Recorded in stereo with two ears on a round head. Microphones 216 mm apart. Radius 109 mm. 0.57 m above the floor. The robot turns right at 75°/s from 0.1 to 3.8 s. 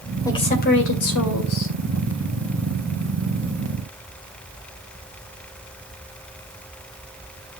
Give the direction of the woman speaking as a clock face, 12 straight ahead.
12 o'clock.